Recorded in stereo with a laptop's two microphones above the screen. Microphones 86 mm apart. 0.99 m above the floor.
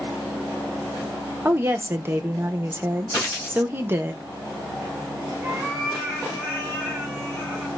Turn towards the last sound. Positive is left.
turn(degrees=-20)  # may be behind; listen again after turning